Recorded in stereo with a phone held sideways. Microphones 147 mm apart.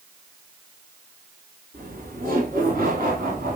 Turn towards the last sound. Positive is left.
turn(degrees=-70)  # may be behind; listen again after turning